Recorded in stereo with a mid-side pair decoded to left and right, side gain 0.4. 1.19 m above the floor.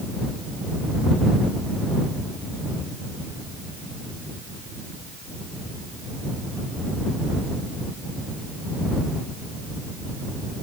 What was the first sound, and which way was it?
Only background noise.